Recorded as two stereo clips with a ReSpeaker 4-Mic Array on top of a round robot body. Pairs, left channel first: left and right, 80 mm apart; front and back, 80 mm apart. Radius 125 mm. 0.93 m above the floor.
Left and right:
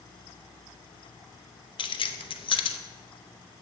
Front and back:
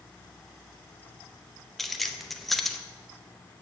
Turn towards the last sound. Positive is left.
turn(degrees=90)